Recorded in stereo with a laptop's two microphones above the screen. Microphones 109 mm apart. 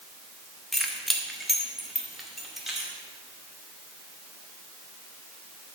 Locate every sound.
0.7 s keys jangling: centre (ahead or behind), 0.9 m; by 2.9 s 5° right (ahead or behind), 2 m